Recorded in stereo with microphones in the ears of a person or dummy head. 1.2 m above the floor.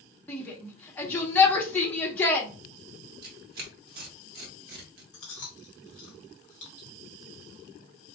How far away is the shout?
About 0.8 m.